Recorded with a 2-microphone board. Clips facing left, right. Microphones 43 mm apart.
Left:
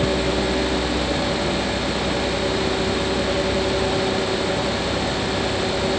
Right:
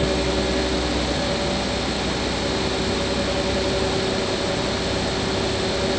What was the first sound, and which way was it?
Only background noise.